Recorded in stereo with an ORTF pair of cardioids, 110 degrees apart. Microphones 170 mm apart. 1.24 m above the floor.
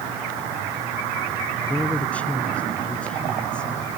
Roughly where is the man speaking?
Ahead.